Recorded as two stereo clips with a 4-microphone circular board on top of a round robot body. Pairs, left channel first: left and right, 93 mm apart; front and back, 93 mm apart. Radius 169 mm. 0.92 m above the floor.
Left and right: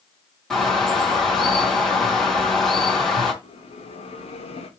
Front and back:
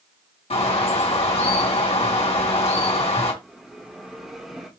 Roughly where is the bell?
Left.